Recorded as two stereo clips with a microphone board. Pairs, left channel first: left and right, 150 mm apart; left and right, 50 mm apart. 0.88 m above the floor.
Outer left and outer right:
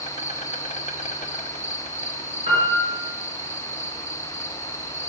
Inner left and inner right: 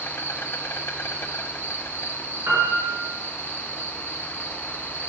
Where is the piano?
50° right (ahead or behind), 5.5 m.